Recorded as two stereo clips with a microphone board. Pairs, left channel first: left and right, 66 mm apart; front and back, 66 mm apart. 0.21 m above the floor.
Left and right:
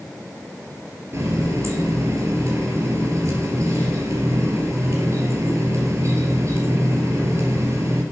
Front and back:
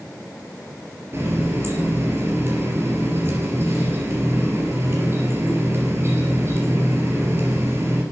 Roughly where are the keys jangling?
No keys jangling in this recording.